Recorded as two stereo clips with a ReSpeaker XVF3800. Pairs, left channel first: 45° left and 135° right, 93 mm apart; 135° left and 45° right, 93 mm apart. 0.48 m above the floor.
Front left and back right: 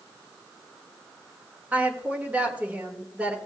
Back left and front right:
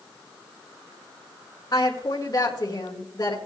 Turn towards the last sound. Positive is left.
turn(degrees=155)